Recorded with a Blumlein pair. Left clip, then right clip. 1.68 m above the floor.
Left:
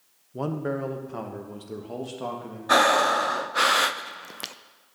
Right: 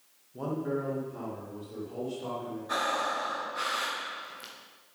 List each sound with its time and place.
0.3 s a man speaking: 65° left, 1.4 m; by 2.6 s 40° left, 3.5 m
2.7 s breathing: 35° left, 0.6 m